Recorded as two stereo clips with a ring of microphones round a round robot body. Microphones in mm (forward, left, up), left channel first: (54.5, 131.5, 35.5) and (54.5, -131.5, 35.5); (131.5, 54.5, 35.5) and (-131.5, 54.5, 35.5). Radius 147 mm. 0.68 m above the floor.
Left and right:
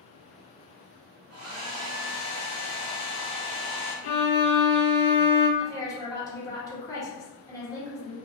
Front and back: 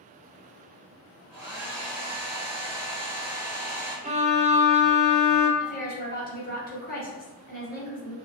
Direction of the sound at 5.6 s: 20° left.